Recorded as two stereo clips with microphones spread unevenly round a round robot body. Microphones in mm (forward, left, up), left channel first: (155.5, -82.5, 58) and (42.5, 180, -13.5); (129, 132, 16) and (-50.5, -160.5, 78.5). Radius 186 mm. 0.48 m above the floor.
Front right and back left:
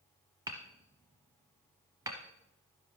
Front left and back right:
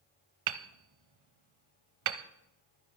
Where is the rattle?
No rattle in this recording.